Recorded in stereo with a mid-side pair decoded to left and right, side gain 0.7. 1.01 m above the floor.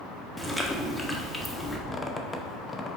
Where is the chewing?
10° left, 1.0 m.